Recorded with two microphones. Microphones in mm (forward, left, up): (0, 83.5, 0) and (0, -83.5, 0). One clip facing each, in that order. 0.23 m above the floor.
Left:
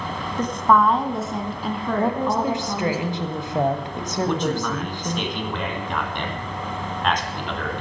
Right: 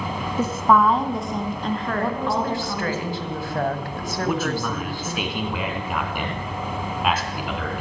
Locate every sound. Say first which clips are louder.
0.4 s a woman speaking: even; 10° right (ahead or behind), 1.3 m; by 3.0 s 10° left (ahead or behind), 3.5 m
2.0 s a woman speaking: left 4 dB; 20° left (ahead or behind), 1.4 m
4.2 s a man speaking: left 1 dB; 5° right (ahead or behind), 2.5 m